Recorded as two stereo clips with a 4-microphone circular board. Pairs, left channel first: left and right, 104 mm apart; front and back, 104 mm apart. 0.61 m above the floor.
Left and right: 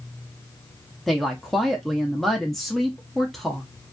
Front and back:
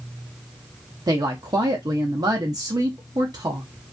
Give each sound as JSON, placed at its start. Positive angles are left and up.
{"t": 1.1, "sound": "a woman speaking", "azimuth_deg": 175, "distance_m": 0.6}